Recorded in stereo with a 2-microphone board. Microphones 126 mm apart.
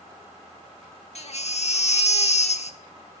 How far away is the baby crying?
About 1.1 m.